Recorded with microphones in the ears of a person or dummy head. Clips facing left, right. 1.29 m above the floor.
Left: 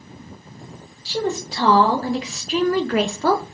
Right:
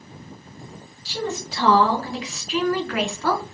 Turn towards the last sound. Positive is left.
turn(degrees=25)  # may be behind; listen again after turning